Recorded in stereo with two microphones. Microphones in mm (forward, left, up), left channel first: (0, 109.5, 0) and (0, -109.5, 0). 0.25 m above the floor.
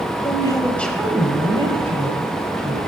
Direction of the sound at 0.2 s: 25° left (ahead or behind).